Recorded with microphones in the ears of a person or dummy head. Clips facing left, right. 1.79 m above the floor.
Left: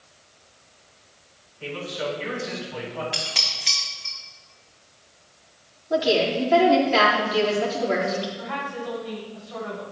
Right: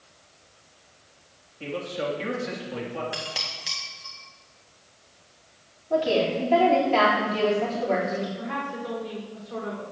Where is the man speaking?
80° right, 3 m.